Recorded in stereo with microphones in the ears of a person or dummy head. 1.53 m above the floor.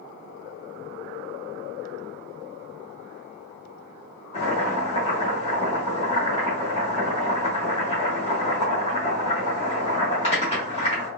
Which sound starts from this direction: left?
Boiling, at 4.3 s.